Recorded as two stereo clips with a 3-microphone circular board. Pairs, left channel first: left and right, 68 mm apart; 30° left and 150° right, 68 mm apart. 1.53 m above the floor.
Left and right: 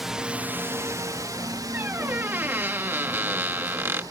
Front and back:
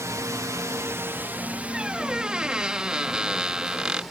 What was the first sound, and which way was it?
A drone, 175° right.